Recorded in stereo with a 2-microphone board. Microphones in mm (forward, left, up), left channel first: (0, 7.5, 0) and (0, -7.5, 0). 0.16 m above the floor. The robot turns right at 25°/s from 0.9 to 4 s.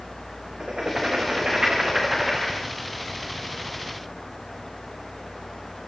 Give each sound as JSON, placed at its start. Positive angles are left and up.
{"t": 0.6, "sound": "writing", "azimuth_deg": -50, "distance_m": 9.5}